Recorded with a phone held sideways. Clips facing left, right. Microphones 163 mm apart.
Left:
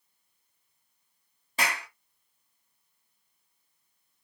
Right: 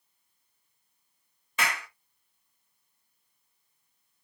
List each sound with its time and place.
1.6 s a clap: 35° left (ahead or behind), 2.5 m